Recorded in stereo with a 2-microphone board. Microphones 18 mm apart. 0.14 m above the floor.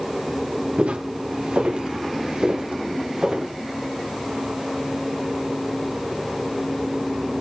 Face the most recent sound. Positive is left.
turn(degrees=-35)  # may be behind; listen again after turning